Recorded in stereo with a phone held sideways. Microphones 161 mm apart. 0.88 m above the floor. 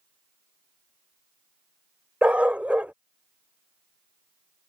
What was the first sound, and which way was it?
A dog barking, 10° right (ahead or behind).